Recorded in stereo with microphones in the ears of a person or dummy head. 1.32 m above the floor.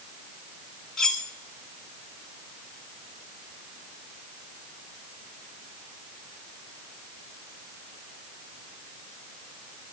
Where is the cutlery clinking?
10° left (ahead or behind), 1.7 m.